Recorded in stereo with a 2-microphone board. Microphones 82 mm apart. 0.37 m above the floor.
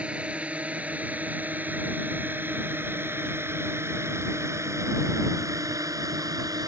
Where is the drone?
15° right (ahead or behind); by 6.7 s 50° right (ahead or behind).